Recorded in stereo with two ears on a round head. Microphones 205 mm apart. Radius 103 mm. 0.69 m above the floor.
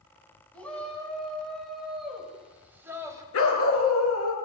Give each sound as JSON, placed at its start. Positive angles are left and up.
{"t": 0.5, "sound": "a shout", "side_deg": 5, "distance_m": 6.5}
{"t": 3.3, "sound": "a dog barking", "side_deg": 65, "distance_m": 5.0}